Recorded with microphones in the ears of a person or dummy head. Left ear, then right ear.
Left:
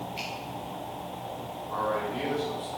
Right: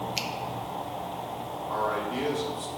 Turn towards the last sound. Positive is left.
turn(degrees=-85)